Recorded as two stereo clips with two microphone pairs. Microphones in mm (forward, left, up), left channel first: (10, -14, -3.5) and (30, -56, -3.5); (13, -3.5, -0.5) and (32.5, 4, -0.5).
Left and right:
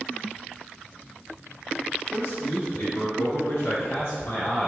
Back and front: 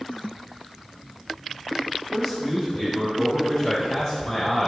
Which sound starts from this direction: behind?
A man speaking, at 2.1 s.